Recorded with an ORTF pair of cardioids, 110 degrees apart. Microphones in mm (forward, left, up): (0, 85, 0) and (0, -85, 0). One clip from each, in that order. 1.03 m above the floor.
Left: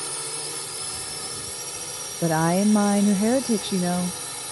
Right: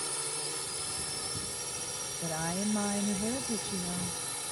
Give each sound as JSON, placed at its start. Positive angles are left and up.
{"t": 0.0, "sound": "a drone", "azimuth_deg": 25}
{"t": 2.2, "sound": "a woman speaking", "azimuth_deg": 65}